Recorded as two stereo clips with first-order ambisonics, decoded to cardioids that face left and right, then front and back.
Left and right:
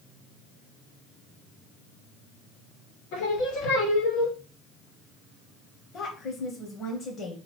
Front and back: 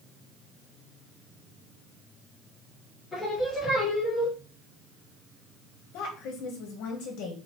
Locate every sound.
3.1 s singing: 80° left, 1.9 m
5.9 s a woman speaking: 30° left, 1.2 m